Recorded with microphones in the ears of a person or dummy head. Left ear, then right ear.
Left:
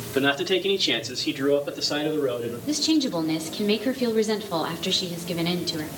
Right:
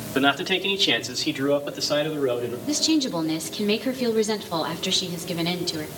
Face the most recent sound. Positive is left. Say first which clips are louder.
# even
turn(degrees=0)  # may be behind; listen again after turning